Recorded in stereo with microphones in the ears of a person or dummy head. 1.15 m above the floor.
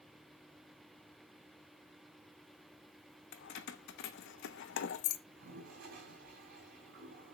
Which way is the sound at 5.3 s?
55° right (ahead or behind).